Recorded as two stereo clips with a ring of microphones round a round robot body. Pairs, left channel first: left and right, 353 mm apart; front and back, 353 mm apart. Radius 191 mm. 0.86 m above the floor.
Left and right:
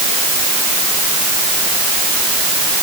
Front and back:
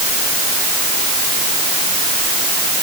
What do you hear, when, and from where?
Only background noise.